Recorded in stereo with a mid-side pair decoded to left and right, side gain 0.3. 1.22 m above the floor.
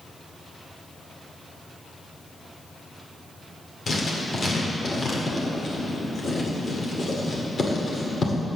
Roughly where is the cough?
I don't hear a cough.